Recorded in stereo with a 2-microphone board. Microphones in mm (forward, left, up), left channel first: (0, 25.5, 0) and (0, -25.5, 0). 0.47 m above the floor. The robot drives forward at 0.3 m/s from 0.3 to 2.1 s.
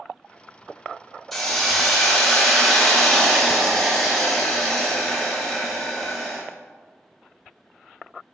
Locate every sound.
1.3 s a hiss: 5° left (ahead or behind), 0.6 m